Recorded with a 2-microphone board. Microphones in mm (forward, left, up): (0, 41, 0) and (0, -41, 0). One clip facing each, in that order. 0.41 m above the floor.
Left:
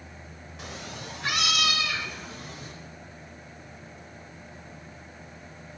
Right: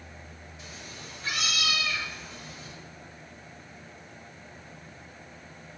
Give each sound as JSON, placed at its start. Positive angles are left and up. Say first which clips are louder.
{"t": 0.6, "sound": "a cat meowing", "louder": "left 7 dB", "side_deg": 65, "distance_m": 0.7}